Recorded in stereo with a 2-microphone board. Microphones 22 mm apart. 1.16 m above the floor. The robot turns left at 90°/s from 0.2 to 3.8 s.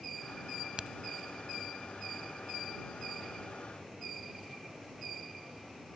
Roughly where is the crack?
Right.